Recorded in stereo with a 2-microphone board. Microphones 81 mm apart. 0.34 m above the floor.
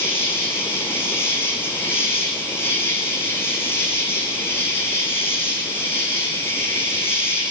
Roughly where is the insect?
Left.